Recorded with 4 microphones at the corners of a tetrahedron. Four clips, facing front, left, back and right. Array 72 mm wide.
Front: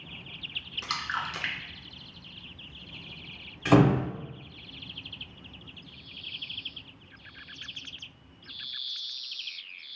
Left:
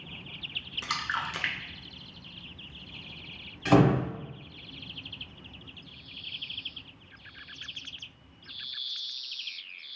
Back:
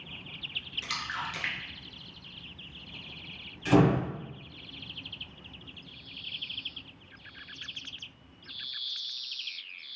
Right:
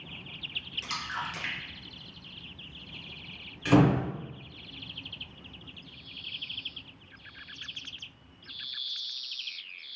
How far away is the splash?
About 0.6 m.